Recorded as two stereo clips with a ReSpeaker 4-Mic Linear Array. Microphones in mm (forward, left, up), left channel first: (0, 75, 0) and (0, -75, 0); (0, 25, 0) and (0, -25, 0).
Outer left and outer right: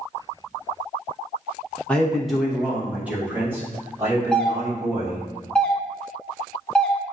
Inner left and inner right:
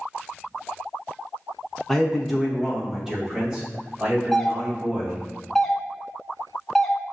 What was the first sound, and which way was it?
A man speaking, 5° left (ahead or behind).